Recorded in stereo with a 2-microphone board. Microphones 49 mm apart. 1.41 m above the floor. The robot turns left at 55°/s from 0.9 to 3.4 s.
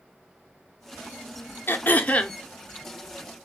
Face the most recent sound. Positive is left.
turn(degrees=-35)